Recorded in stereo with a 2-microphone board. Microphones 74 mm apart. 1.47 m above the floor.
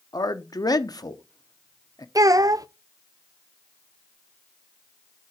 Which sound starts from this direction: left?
A man speaking, at 0.1 s.